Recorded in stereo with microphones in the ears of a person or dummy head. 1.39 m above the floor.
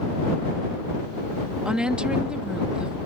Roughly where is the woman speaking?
Centre.